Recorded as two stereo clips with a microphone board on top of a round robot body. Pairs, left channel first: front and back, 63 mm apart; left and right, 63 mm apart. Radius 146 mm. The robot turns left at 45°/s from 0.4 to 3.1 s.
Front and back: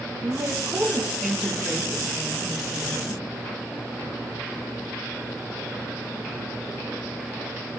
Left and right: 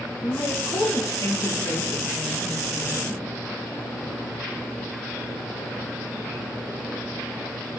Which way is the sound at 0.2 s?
135° left.